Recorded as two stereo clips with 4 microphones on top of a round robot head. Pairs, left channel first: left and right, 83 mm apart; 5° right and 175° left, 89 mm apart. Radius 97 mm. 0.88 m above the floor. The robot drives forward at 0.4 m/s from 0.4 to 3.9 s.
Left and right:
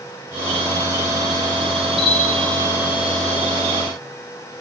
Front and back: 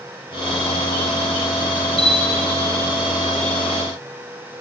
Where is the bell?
80° left, 4.5 m.